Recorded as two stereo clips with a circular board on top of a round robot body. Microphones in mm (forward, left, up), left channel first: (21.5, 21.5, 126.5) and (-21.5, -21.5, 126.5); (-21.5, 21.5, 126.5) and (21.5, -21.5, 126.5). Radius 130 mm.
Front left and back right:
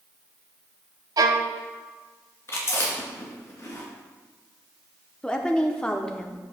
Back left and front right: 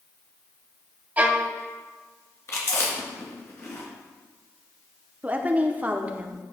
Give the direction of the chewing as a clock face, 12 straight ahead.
9 o'clock.